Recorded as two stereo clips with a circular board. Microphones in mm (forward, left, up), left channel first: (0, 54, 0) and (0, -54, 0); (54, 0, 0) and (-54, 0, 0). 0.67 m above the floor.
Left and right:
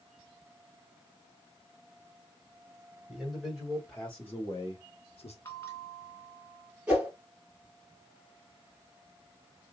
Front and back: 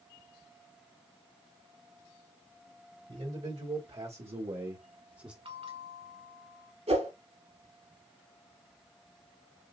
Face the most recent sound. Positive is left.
turn(degrees=-170)